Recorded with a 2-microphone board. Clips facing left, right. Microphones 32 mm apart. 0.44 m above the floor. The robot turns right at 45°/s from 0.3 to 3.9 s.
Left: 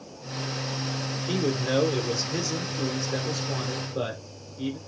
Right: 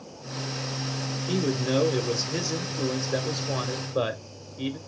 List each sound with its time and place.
1.3 s a man speaking: 15° left (ahead or behind), 0.9 m; by 4.8 s 25° right (ahead or behind), 0.9 m